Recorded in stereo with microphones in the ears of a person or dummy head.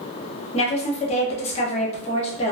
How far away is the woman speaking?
About 1.0 m.